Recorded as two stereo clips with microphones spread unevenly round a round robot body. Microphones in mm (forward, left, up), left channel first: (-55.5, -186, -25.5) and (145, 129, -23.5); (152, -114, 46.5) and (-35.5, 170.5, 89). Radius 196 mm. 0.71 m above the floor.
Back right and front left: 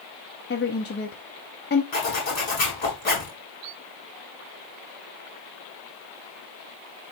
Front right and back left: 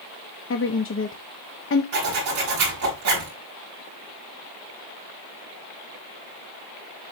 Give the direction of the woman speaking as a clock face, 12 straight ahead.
2 o'clock.